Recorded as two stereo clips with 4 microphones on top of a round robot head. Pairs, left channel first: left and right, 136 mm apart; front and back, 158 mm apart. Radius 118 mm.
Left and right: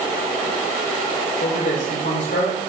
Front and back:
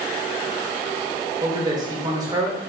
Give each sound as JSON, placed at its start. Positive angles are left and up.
{"t": 1.4, "sound": "a man speaking", "azimuth_deg": 115, "distance_m": 2.5}